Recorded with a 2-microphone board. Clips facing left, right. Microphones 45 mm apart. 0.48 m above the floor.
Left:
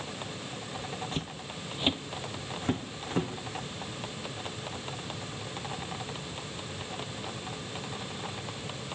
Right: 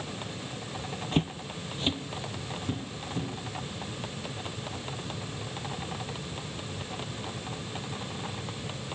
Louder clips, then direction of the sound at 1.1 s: Right 7 dB; 40° right (ahead or behind).